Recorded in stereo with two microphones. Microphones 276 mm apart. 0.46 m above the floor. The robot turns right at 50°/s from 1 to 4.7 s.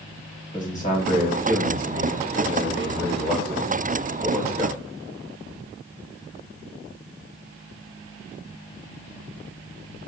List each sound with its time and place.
0.5 s a man speaking: 35° left, 1.2 m; by 4.8 s 140° right, 1.2 m